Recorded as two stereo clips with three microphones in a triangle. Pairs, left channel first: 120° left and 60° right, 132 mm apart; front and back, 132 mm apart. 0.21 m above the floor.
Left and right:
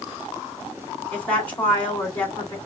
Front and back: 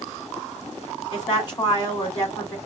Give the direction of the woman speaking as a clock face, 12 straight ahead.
11 o'clock.